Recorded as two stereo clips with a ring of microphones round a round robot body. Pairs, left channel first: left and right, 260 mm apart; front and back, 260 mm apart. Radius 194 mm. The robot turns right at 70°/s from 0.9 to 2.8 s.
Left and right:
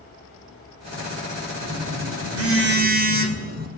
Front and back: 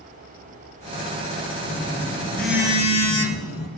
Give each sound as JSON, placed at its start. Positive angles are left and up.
{"t": 1.6, "sound": "a phone buzzing", "azimuth_deg": -120, "distance_m": 3.5}